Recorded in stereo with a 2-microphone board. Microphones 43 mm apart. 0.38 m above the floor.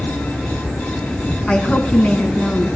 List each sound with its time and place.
1.5 s a woman speaking: 25° left (ahead or behind), 3.5 m